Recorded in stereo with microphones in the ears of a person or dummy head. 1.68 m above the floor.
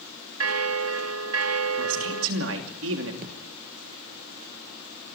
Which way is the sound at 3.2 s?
50° right (ahead or behind).